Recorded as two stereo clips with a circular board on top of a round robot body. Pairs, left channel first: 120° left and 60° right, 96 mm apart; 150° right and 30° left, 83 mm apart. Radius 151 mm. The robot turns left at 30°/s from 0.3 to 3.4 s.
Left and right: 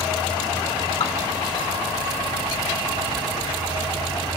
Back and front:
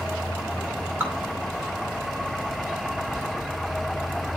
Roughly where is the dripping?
Left.